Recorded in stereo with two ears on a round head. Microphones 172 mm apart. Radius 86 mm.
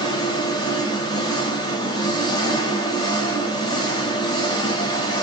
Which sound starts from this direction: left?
An engine running, at 0.0 s.